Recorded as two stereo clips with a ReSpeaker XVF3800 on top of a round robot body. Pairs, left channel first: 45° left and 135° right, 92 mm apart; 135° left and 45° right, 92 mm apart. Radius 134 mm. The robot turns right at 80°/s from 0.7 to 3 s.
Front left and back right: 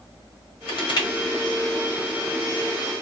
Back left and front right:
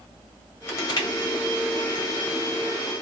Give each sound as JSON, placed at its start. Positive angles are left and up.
{"t": 0.7, "sound": "crushing", "azimuth_deg": 70, "distance_m": 1.4}